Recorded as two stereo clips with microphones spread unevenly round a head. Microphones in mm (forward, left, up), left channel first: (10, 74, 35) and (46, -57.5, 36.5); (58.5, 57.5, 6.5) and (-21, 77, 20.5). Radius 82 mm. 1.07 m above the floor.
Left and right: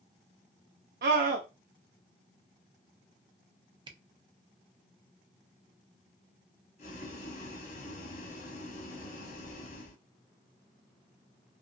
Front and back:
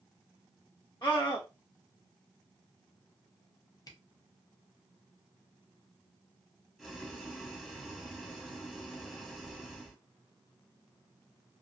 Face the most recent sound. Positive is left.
turn(degrees=80)